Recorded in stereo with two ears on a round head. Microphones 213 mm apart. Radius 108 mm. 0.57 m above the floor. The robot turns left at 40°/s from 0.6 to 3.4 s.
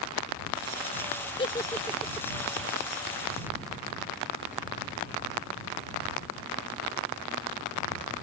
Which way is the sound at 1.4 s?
20° left (ahead or behind).